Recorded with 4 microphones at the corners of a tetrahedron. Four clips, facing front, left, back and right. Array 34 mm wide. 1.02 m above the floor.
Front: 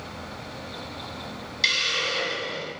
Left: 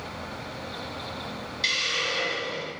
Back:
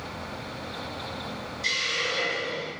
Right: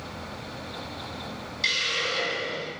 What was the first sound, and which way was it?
A hiss, 5° right.